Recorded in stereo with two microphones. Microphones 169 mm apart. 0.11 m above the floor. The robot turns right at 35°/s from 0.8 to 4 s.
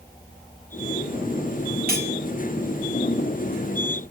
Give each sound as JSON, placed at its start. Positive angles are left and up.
{"t": 1.9, "sound": "cutlery clinking", "side_deg": -65, "distance_m": 1.7}